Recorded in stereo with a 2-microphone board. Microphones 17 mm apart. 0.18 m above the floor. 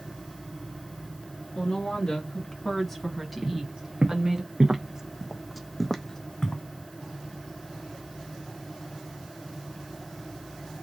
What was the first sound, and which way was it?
A woman speaking, 45° left (ahead or behind).